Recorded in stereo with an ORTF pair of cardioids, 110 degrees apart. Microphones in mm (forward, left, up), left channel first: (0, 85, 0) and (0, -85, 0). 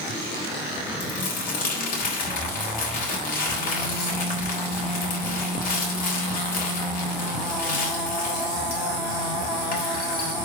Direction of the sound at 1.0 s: 55° left.